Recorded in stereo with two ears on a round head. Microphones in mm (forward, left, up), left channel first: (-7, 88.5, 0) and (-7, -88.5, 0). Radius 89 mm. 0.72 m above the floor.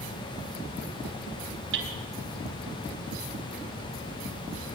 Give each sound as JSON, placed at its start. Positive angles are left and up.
{"t": 1.7, "sound": "hammering", "side_deg": -60, "distance_m": 4.0}